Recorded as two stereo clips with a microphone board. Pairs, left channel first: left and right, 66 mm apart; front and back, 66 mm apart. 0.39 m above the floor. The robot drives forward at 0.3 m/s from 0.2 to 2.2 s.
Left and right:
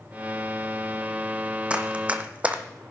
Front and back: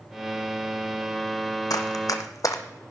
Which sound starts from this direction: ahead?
Running footsteps, at 1.7 s.